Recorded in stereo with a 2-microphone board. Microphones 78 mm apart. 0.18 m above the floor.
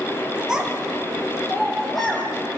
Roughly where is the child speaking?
Centre.